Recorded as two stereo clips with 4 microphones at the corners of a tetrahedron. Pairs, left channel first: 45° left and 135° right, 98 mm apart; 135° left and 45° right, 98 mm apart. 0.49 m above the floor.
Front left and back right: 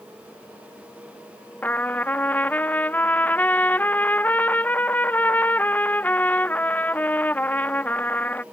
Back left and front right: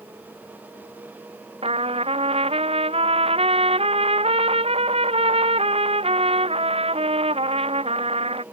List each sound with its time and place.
1.6 s a trumpet: 30° right